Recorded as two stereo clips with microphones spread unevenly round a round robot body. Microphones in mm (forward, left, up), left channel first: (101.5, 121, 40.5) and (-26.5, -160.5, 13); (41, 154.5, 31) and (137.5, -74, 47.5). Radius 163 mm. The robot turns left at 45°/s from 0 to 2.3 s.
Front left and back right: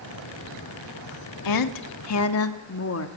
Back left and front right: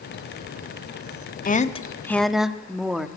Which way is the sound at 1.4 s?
60° left.